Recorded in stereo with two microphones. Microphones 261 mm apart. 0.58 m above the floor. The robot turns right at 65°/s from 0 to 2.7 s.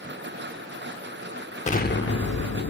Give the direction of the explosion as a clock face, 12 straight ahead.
11 o'clock.